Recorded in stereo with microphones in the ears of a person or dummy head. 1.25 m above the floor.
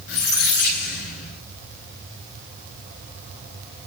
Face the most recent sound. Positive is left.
turn(degrees=60)  # may be behind; listen again after turning